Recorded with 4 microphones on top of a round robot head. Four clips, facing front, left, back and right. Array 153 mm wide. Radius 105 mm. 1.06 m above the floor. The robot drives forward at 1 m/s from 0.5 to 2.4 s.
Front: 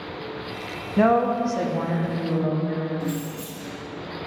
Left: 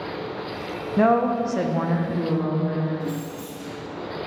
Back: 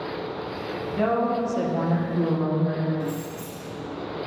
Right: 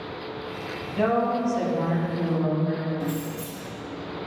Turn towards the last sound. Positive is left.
turn(degrees=-70)